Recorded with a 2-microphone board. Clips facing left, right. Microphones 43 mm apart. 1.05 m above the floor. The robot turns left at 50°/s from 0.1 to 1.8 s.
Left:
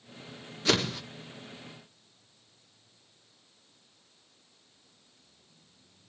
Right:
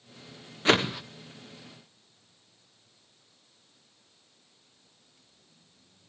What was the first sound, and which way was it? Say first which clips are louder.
A whoosh: right 4 dB; 25° right (ahead or behind).